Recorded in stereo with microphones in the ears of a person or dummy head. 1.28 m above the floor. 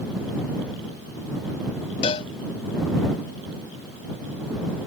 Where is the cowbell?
35° left (ahead or behind).